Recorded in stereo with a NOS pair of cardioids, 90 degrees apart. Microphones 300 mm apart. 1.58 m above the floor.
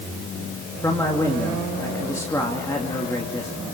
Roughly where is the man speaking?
Ahead.